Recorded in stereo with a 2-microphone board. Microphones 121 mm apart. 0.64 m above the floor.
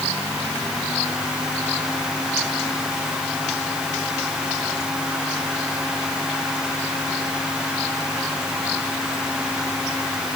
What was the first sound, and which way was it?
Only background noise.